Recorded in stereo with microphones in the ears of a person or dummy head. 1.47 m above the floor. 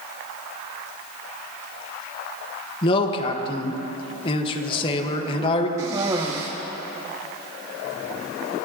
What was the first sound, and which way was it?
A man speaking, 25° left (ahead or behind).